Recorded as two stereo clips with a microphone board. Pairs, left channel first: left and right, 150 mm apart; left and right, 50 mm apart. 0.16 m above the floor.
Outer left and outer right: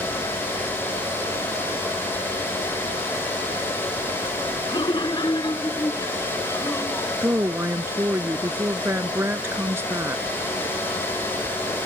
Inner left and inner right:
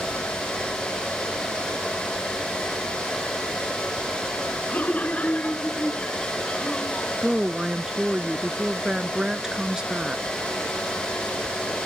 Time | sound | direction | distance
4.7 | laughter | 35° left (ahead or behind) | ?
7.2 | a woman speaking | 15° right (ahead or behind) | ?